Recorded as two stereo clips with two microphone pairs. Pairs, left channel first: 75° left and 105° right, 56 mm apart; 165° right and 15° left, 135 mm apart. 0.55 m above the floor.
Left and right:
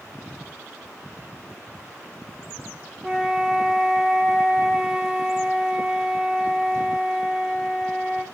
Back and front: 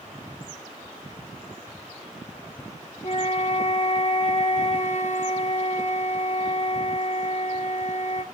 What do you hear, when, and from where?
3.0 s a flute: 175° left, 3 m